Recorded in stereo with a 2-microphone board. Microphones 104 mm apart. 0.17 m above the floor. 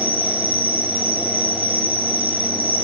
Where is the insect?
55° right (ahead or behind), 4.5 m.